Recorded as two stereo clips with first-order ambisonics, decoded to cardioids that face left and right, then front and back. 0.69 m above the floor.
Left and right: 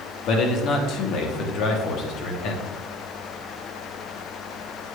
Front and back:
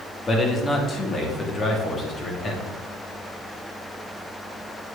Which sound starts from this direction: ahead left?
A man speaking, at 0.3 s.